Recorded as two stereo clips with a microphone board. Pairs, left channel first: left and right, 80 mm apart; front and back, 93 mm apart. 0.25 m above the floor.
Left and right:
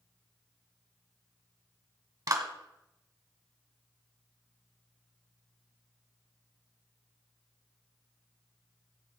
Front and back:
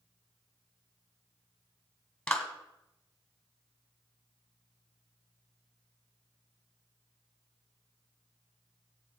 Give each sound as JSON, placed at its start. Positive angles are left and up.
{"t": 2.3, "sound": "a clap", "azimuth_deg": -80, "distance_m": 1.4}